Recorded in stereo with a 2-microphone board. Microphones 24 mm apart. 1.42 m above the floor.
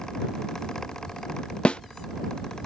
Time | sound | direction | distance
1.6 | a snare drum | 55° left (ahead or behind) | ?